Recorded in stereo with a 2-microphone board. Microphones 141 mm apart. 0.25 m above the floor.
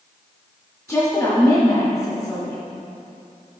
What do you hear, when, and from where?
0.9 s a woman speaking: 10° left (ahead or behind), 1.9 m